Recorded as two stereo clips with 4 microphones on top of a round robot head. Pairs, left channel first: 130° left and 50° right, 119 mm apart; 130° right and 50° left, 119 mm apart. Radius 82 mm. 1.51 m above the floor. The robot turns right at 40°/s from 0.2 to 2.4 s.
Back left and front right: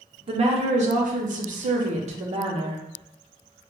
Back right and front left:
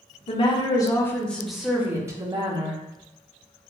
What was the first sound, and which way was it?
A woman speaking, 90° right.